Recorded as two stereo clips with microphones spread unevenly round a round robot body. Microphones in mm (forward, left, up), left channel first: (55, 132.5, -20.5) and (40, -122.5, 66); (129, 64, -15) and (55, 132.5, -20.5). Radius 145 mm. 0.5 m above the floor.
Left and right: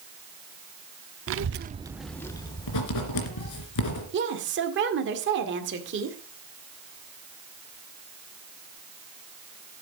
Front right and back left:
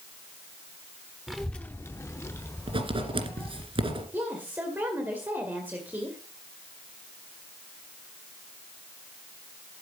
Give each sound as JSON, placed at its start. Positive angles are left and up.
{"t": 1.3, "sound": "a child speaking", "azimuth_deg": -140, "distance_m": 0.7}
{"t": 2.7, "sound": "writing", "azimuth_deg": 105, "distance_m": 2.5}
{"t": 4.1, "sound": "a woman speaking", "azimuth_deg": -150, "distance_m": 1.9}